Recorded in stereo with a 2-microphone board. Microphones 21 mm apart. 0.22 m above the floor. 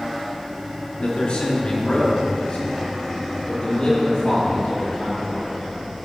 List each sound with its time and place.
1.0 s a man speaking: 50° left (ahead or behind), 3 m; by 5.5 s 40° left (ahead or behind), 5 m